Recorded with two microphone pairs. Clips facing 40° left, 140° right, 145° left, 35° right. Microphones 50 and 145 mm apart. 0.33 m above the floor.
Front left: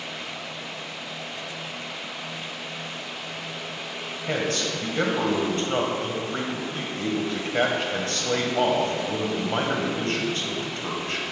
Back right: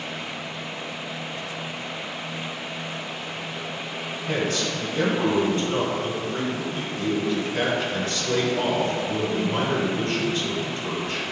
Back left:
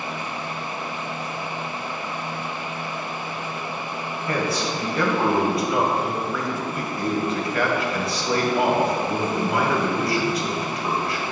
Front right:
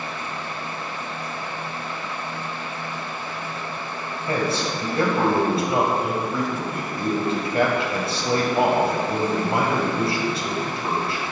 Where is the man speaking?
15° left, 1.8 m.